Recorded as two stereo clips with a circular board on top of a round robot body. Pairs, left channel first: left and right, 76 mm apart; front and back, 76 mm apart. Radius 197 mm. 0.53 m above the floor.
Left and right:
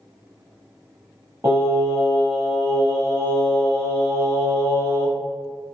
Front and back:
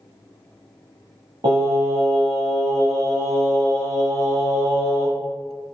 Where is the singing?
155° right, 0.8 m.